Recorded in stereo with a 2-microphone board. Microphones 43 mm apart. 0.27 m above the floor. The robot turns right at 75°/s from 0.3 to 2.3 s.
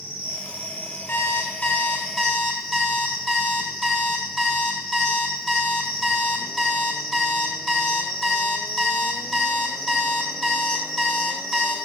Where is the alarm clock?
90° left, 0.8 m; by 11.8 s 175° right, 0.8 m.